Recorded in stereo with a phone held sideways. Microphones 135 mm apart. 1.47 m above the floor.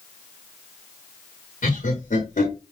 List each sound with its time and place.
1.6 s laughter: 70° left (ahead or behind), 1.3 m